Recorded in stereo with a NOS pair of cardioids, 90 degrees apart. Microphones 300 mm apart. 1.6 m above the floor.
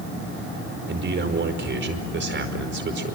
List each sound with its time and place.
0.9 s a man speaking: 40° right, 5 m